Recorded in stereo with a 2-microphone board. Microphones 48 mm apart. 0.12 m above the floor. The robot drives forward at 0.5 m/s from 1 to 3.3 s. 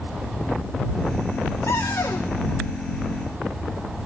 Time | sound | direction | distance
1.7 | a cupboard door | 70° left (ahead or behind) | 3.5 m